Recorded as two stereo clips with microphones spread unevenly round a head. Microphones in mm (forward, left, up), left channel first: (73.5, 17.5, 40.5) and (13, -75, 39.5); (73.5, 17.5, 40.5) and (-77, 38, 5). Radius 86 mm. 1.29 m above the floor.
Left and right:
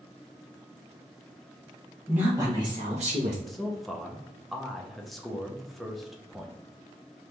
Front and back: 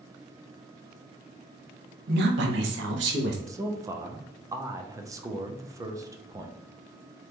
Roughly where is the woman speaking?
Behind left.